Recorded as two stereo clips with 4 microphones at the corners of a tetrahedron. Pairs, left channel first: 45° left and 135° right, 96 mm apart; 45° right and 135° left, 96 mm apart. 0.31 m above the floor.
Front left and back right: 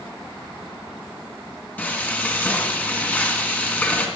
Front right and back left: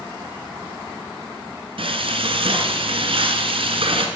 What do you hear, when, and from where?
1.8 s frying: 120° left, 1.6 m